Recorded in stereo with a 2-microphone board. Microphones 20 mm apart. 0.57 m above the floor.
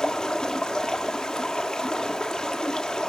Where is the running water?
30° left (ahead or behind), 1.4 m.